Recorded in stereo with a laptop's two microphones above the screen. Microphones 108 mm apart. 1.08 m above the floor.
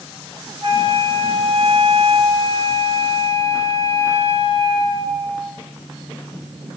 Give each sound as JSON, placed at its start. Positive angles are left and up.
{"t": 0.6, "sound": "a flute", "side_deg": -60, "distance_m": 2.5}